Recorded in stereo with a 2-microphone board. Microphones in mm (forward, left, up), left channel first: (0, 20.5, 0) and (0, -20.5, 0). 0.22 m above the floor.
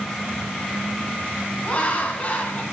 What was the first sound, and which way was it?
Laughter, 35° left (ahead or behind).